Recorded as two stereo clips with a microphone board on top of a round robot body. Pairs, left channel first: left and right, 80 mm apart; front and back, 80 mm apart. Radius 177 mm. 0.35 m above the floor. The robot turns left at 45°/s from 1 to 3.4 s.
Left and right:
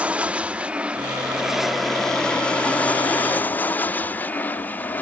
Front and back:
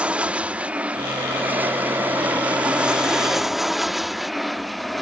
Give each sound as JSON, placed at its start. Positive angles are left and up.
{"t": 0.0, "sound": "an aircraft", "azimuth_deg": -135}